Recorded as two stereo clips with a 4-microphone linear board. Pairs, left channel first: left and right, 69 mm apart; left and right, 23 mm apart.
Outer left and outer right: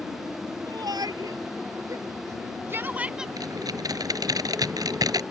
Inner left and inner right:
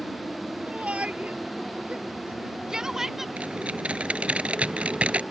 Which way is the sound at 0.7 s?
75° right (ahead or behind).